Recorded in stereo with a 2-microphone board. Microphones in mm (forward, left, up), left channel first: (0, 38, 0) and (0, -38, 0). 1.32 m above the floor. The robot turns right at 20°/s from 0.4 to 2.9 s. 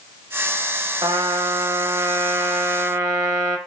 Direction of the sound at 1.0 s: 90° right.